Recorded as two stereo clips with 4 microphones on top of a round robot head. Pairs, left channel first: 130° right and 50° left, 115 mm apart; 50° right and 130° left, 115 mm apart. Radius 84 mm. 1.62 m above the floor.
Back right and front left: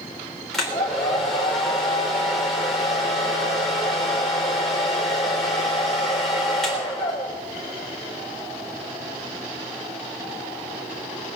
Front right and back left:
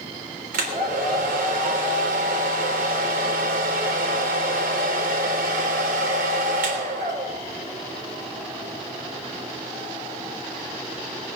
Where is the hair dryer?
140° left, 3.5 m.